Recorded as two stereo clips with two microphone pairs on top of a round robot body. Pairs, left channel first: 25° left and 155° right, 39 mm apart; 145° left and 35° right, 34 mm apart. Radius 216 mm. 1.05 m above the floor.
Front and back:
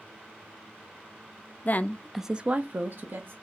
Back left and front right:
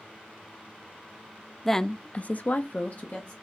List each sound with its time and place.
1.6 s a woman speaking: 50° left, 0.5 m; by 3.3 s 170° right, 0.9 m